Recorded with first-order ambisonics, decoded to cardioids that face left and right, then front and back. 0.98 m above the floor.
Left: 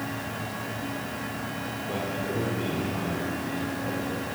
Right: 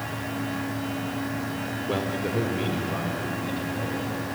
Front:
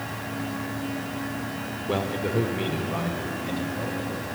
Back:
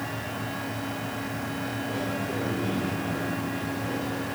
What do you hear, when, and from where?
1.9 s a man speaking: 35° right, 2.5 m; by 4.2 s 30° right, 6.5 m